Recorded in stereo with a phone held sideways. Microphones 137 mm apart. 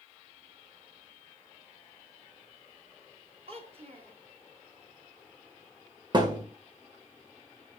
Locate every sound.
3.5 s a child speaking: 45° right (ahead or behind), 1.9 m
6.1 s a thud: 35° right (ahead or behind), 2.0 m